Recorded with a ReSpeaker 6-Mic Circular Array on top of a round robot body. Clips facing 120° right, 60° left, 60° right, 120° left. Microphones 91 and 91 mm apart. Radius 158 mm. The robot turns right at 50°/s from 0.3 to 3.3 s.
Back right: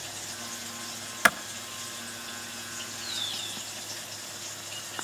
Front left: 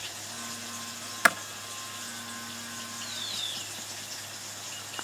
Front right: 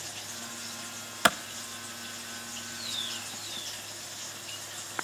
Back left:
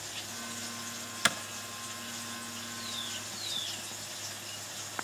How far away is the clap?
About 1.0 m.